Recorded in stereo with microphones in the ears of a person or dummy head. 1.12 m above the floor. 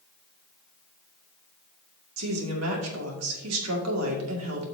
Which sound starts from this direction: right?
A woman speaking, at 2.2 s.